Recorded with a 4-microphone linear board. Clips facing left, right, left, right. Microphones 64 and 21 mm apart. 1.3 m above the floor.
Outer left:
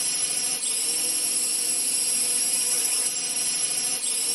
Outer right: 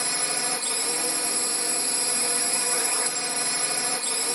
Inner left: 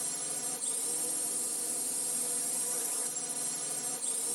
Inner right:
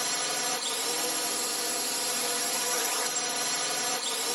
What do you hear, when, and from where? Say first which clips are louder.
0.0 s a drone: outer right 8 dB, inner right 11 dB; 55° right (ahead or behind)